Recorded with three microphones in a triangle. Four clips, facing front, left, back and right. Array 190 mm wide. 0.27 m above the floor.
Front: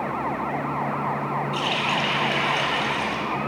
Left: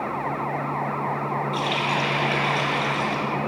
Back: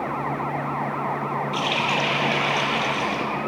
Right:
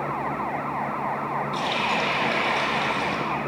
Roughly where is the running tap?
Behind right.